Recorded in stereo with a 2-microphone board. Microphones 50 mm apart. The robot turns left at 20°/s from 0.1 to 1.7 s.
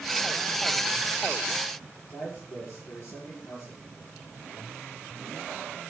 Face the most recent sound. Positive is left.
turn(degrees=65)  # may be behind; listen again after turning